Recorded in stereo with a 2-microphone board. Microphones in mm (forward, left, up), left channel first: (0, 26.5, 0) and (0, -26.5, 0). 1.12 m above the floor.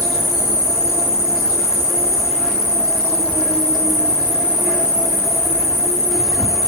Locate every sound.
0.0 s an insect: 5° left (ahead or behind), 1.6 m